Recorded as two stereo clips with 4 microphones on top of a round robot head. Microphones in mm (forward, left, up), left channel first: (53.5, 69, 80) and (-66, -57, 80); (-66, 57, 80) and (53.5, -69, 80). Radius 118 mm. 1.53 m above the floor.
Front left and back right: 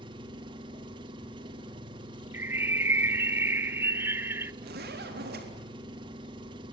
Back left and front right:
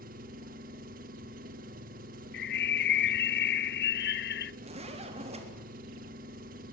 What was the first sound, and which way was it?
An engine running, 75° right.